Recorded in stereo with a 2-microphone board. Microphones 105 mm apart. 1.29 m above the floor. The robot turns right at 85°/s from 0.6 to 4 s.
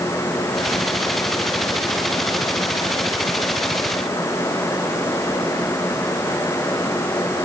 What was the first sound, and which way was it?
Only background noise.